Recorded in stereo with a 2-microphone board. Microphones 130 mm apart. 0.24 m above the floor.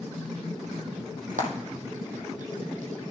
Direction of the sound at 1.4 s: 85° right.